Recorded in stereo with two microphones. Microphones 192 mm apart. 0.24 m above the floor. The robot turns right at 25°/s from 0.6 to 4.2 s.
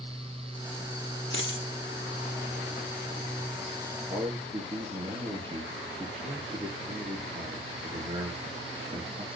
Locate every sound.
1.3 s a dropped coin: 65° left (ahead or behind), 2 m; by 1.6 s 70° left (ahead or behind), 2 m
4.1 s a man speaking: 30° right (ahead or behind), 4.5 m; by 9.3 s 25° right (ahead or behind), 4.5 m